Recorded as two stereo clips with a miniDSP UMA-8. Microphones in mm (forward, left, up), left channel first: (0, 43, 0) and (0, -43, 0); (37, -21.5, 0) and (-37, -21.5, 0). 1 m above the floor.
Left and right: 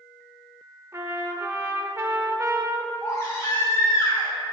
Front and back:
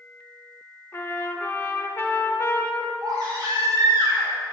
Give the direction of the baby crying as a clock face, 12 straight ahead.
7 o'clock.